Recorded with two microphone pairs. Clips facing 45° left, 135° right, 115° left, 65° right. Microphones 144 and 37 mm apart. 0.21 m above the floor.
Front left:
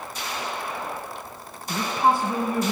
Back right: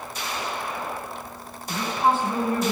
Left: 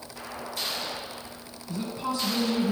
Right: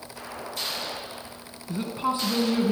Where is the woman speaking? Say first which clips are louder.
Front left 1 dB, right 4 dB; 20° right, 2.5 m.